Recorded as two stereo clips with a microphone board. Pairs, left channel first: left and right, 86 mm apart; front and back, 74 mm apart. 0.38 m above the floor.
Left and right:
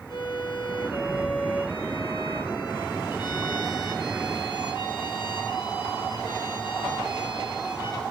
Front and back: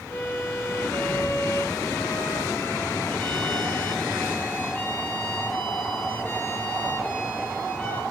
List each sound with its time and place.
0.1 s a violin: 60° left, 5.5 m